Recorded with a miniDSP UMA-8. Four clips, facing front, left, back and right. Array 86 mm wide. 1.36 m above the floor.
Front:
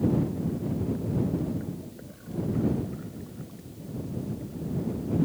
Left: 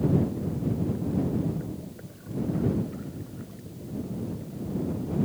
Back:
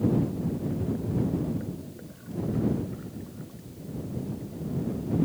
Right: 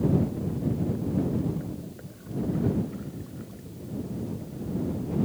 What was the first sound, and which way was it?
Only background noise.